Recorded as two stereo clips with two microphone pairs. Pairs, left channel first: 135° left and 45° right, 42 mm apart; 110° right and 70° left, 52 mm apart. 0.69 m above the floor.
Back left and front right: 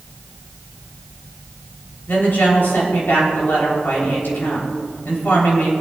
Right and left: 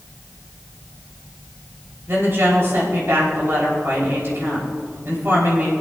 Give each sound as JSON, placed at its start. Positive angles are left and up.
{"t": 2.1, "sound": "a woman speaking", "azimuth_deg": 105, "distance_m": 4.0}